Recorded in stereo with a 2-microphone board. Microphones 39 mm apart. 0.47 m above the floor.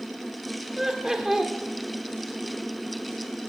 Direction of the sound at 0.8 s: 10° right (ahead or behind).